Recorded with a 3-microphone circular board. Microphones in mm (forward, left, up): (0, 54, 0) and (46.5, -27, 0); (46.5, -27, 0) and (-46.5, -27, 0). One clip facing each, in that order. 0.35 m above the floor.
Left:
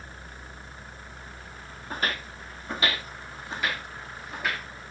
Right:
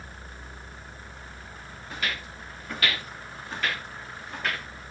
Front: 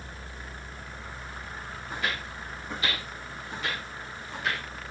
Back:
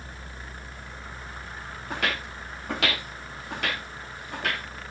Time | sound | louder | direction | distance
1.9 | footsteps | left 3 dB, back 3 dB | 170° left | 2.5 m